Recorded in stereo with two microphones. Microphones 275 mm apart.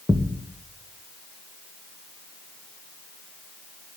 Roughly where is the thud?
Centre.